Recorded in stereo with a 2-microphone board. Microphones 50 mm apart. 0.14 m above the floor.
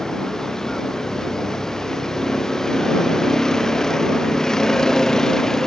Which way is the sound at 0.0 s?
10° left (ahead or behind).